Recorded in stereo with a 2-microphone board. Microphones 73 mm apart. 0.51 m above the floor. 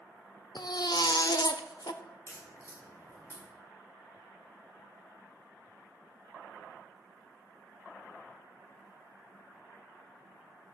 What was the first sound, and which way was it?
A baby crying, 65° left (ahead or behind).